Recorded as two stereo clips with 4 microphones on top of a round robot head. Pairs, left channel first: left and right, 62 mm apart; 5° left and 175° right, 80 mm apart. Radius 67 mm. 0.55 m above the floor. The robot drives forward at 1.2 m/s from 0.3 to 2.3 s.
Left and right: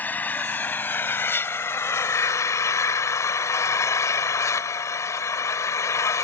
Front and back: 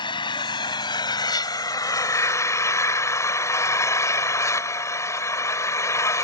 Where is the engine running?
30° left; by 6.2 s 55° left.